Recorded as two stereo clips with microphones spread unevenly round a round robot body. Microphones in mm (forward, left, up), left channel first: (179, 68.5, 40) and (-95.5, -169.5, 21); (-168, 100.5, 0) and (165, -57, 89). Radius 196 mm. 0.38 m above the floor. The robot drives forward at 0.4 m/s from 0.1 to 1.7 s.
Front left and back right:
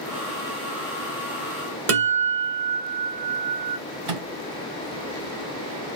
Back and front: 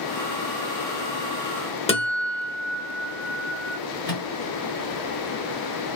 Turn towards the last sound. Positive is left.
turn(degrees=-130)